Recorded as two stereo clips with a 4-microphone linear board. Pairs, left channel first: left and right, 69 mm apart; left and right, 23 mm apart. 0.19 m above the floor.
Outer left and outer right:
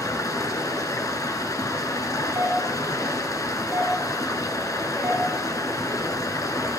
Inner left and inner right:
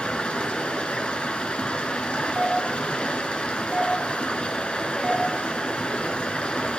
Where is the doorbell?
25° right (ahead or behind), 3.5 m.